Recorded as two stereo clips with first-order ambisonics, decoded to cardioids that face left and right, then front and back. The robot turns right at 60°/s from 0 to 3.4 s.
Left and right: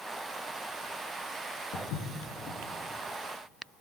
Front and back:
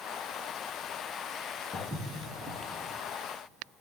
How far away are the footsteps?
About 1.6 m.